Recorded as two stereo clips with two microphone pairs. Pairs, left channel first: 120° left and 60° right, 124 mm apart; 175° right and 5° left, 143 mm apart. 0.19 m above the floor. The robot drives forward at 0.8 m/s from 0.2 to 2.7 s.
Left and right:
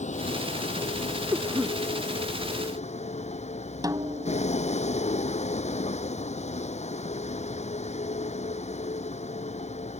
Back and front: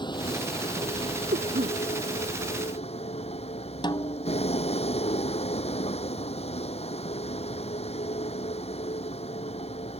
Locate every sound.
0.0 s a vehicle: 125° left; by 10.0 s 140° left
1.3 s a cough: 10° left
3.8 s a snare drum: 120° right